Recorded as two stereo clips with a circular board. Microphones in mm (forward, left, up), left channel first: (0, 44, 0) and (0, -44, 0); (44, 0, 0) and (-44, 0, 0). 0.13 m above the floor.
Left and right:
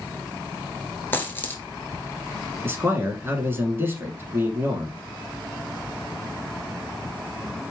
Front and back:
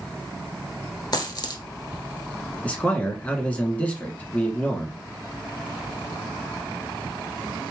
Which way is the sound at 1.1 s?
30° left.